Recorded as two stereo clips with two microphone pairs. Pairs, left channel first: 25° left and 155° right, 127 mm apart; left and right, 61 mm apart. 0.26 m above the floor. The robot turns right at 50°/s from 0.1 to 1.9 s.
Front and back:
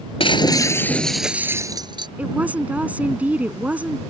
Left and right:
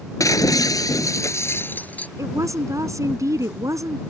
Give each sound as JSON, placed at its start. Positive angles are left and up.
{"t": 0.2, "sound": "breaking glass", "azimuth_deg": 65}
{"t": 2.2, "sound": "a woman speaking", "azimuth_deg": -80}